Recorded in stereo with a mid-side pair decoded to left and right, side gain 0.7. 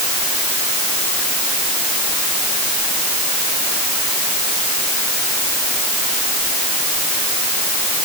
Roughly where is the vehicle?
No vehicle in this recording.